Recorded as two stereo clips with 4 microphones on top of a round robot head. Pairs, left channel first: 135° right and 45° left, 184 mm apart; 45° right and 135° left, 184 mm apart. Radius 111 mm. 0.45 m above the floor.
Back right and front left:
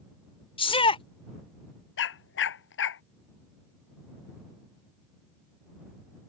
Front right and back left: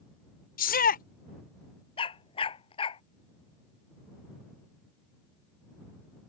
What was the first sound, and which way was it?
A shout, 75° right.